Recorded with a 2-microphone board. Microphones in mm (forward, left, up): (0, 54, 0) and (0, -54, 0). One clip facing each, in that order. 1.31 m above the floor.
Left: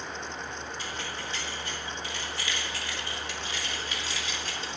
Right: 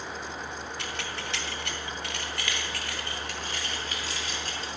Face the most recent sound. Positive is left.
turn(degrees=-40)  # may be behind; listen again after turning